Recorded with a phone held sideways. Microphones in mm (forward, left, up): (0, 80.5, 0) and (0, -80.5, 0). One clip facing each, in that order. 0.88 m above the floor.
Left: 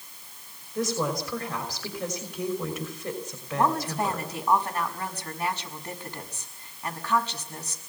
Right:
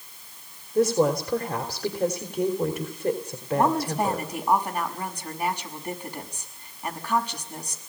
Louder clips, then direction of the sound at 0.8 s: Right 7 dB; 35° right (ahead or behind).